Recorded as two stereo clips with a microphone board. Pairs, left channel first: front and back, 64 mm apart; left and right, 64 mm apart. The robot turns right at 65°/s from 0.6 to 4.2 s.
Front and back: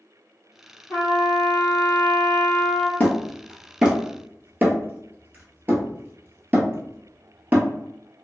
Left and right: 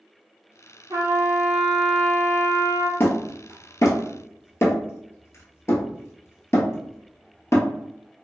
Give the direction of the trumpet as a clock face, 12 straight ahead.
2 o'clock.